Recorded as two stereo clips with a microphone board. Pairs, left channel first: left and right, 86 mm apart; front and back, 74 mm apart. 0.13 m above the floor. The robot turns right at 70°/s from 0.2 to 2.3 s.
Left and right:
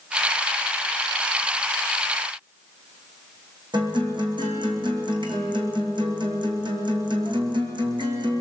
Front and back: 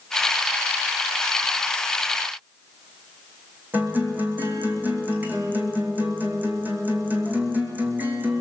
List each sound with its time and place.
3.7 s a guitar: 110° right, 2.5 m